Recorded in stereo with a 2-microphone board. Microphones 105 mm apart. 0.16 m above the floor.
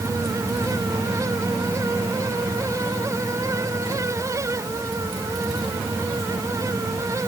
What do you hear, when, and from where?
Only background noise.